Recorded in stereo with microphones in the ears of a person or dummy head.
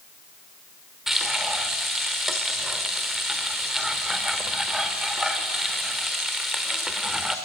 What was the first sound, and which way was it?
Frying, centre (ahead or behind).